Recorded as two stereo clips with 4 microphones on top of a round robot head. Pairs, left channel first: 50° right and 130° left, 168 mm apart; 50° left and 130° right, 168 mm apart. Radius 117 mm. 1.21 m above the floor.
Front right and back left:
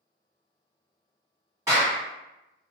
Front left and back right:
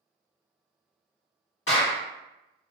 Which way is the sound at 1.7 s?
55° left.